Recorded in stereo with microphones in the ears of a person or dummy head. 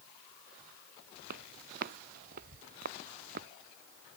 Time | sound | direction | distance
1.3 | footsteps | 50° right (ahead or behind) | ?